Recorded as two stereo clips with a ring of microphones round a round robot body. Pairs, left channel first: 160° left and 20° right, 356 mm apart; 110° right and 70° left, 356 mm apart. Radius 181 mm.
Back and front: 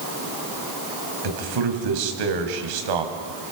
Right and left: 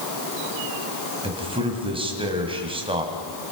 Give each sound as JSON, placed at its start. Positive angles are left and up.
{"t": 1.2, "sound": "a man speaking", "azimuth_deg": -10, "distance_m": 3.0}